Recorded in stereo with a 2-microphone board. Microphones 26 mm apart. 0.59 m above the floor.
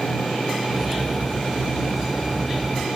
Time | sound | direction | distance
0.7 | cutlery clinking | 10° right (ahead or behind) | ?